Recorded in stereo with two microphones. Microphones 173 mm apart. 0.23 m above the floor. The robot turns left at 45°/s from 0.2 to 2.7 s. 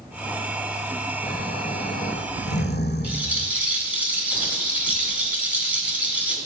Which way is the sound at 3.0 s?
10° right (ahead or behind).